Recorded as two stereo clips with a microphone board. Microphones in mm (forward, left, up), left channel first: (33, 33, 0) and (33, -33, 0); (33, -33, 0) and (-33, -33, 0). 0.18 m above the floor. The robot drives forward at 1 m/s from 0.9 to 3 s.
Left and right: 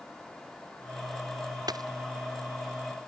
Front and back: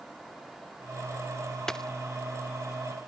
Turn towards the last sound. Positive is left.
turn(degrees=-90)